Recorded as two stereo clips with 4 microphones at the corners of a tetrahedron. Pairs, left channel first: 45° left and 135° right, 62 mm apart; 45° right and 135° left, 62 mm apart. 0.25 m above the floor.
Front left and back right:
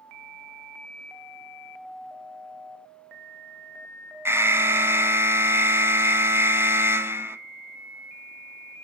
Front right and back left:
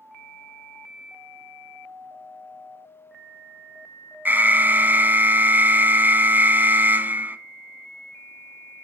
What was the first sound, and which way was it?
An alarm, 175° right.